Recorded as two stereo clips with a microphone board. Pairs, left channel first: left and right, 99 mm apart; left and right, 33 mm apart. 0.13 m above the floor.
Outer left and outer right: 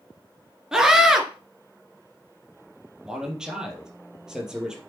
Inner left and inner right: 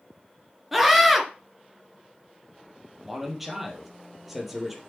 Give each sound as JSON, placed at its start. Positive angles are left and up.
{"t": 0.7, "sound": "a scream", "side_deg": -5, "distance_m": 2.0}
{"t": 3.0, "sound": "a man speaking", "side_deg": -5, "distance_m": 3.0}